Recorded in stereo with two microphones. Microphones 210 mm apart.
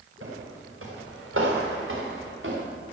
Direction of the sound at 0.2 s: 80° right.